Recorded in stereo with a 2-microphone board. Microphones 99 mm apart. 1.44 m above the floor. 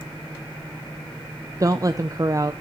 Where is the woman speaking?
35° right (ahead or behind), 0.5 m.